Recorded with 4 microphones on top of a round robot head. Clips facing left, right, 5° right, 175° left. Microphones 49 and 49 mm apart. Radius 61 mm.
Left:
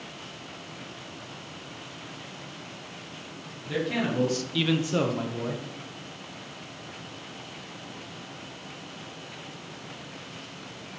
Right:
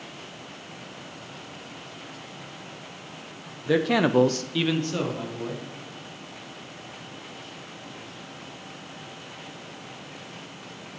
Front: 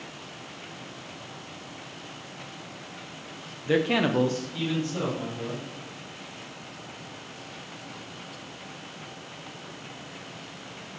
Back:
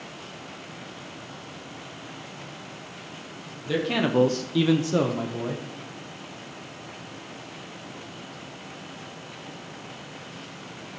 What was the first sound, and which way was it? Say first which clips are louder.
A man speaking: right 7 dB, front 1 dB; 75° right.